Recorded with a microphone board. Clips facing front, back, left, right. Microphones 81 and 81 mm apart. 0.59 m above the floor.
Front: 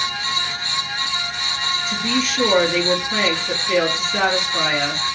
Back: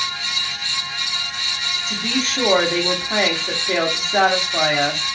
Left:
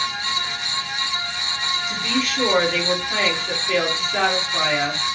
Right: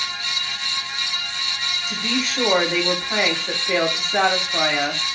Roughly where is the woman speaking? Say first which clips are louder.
Front 1 dB, even; behind right.